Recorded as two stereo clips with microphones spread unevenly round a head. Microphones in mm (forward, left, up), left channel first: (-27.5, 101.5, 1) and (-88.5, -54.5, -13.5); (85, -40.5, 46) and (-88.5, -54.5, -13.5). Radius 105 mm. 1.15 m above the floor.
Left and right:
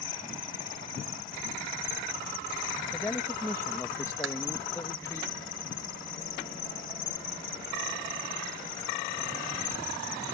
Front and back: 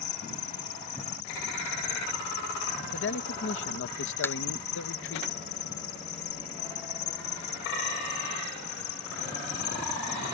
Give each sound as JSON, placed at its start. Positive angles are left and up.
{"t": 0.0, "sound": "an insect", "azimuth_deg": 15}
{"t": 2.9, "sound": "a man speaking", "azimuth_deg": -10}
{"t": 4.2, "sound": "a thud", "azimuth_deg": -70}